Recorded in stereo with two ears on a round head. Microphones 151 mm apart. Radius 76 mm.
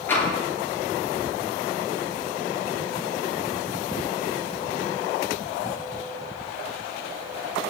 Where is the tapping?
10° left (ahead or behind), 8 m.